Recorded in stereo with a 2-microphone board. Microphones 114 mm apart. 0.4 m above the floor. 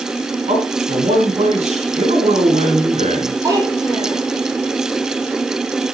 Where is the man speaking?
75° right (ahead or behind), 4.5 m.